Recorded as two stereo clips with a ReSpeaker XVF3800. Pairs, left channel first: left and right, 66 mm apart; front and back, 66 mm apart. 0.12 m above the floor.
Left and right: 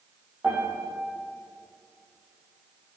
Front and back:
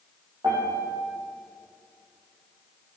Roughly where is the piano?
Behind.